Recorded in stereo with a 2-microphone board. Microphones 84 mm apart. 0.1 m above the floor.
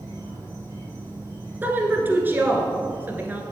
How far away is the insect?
About 2.5 m.